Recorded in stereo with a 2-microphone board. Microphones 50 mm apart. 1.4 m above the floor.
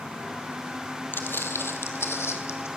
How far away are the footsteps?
About 2 m.